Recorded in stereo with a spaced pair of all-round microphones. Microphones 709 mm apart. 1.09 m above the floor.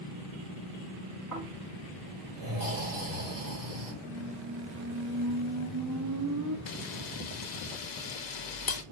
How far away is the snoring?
About 2.5 m.